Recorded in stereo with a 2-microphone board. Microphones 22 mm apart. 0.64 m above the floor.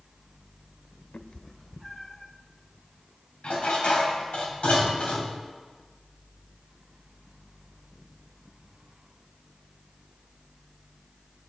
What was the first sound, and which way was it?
A cat meowing, 70° left (ahead or behind).